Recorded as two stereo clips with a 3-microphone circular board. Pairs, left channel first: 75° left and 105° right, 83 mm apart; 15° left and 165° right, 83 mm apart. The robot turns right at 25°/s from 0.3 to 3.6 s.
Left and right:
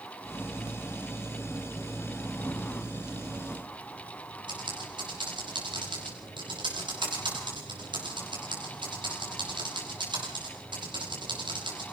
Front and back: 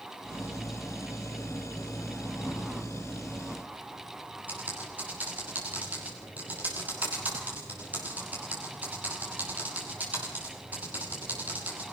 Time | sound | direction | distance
4.5 | typing on a keyboard | 95° right | 6.5 m